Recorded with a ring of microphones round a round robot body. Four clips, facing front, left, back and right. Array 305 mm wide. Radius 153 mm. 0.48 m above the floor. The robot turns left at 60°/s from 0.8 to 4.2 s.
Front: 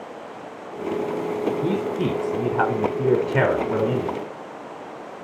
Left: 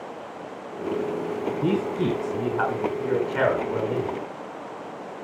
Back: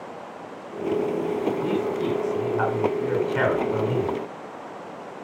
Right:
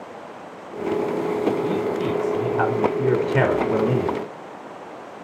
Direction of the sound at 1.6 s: 60° left.